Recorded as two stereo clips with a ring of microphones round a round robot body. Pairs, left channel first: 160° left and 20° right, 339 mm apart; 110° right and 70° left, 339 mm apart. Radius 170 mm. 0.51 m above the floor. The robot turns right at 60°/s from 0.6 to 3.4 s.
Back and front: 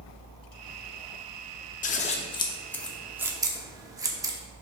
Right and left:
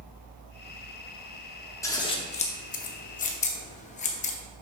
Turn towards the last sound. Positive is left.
turn(degrees=-85)